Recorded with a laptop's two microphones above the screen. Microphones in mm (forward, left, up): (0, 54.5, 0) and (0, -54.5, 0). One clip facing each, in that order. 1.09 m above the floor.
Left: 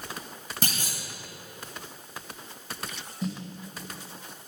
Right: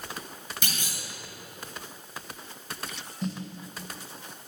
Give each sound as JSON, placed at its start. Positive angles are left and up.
{"t": 0.6, "sound": "a clunk", "side_deg": 40, "distance_m": 1.2}
{"t": 3.2, "sound": "a snare drum", "side_deg": 5, "distance_m": 1.1}